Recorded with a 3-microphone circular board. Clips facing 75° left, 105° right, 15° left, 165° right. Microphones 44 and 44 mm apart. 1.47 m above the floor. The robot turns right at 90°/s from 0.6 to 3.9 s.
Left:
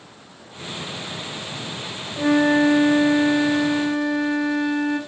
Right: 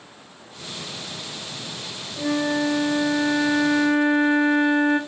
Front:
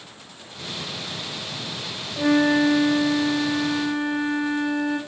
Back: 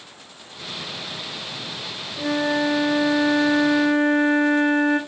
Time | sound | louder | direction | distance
2.2 | a flute | left 6 dB, front 4 dB | 50° left | 1.4 m